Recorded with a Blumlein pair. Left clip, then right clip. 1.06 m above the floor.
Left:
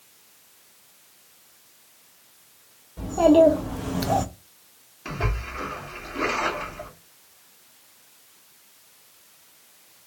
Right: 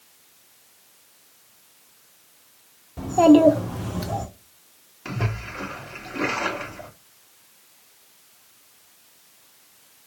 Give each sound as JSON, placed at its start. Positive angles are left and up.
{"t": 3.0, "sound": "a child speaking", "azimuth_deg": -20, "distance_m": 1.6}
{"t": 5.0, "sound": "a splash", "azimuth_deg": -10, "distance_m": 1.1}